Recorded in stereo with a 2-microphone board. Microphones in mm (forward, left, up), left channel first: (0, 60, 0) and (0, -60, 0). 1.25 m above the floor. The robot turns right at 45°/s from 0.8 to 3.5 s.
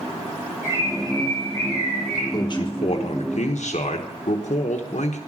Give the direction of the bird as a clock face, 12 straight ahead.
5 o'clock.